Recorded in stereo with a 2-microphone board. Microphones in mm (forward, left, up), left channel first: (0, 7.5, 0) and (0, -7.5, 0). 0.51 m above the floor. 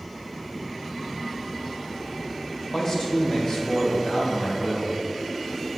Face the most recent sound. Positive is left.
turn(degrees=75)  # may be behind; listen again after turning